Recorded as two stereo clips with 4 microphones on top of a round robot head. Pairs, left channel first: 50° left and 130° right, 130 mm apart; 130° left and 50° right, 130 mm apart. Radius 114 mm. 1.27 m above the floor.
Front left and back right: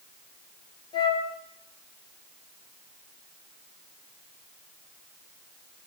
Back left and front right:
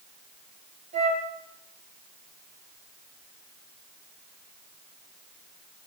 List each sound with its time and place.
0.9 s a flute: 10° right, 5 m